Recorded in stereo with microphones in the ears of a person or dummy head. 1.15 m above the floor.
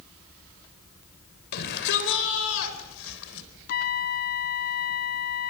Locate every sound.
1.5 s a shout: 60° left (ahead or behind), 4 m; by 3.5 s 85° left, 4.5 m
3.7 s a trumpet: 45° left (ahead or behind), 1.0 m